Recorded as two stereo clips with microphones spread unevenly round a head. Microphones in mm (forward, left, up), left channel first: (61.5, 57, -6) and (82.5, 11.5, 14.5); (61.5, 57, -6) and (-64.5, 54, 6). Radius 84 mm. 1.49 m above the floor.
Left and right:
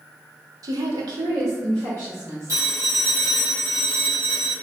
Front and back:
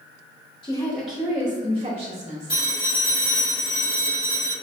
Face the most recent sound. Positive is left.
turn(degrees=-65)